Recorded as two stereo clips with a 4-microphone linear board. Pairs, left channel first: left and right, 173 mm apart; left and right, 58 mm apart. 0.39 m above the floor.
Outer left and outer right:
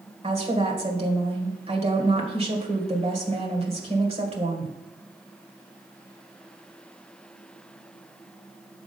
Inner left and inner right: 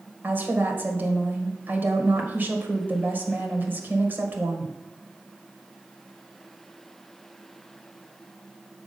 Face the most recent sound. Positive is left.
turn(degrees=-35)  # may be behind; listen again after turning